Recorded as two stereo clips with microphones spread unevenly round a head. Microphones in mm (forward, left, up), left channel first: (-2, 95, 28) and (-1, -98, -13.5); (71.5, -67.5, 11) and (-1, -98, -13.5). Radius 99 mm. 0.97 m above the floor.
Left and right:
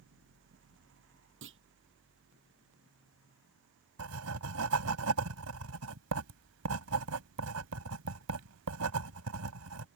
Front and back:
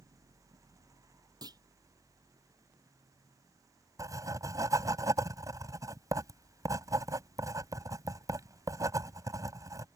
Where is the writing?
105° right.